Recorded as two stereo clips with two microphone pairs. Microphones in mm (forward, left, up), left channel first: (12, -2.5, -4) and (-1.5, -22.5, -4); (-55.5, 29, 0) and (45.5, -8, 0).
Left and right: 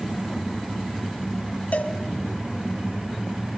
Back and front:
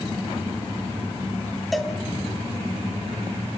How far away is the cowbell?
About 2.5 m.